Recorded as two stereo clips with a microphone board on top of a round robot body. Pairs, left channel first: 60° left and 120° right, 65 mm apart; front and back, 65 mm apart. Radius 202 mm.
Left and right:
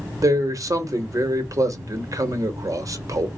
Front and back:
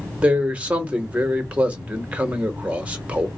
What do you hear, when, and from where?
0.2 s a man speaking: 115° right, 1.2 m